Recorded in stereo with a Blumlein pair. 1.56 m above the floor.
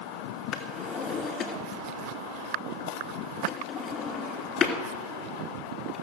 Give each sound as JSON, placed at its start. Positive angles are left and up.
{"t": 0.5, "sound": "a drawer", "azimuth_deg": 20, "distance_m": 2.5}